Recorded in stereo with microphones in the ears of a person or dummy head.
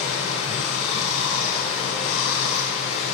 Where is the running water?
70° left (ahead or behind), 4 m.